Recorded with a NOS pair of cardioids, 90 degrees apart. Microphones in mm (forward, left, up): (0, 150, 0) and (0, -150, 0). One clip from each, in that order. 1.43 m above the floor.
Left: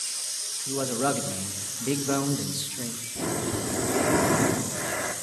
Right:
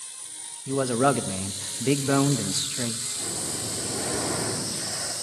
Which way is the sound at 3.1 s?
65° left.